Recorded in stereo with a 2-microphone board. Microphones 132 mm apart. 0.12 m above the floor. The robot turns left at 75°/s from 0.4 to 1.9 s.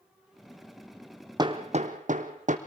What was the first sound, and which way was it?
Hammering, 30° right (ahead or behind).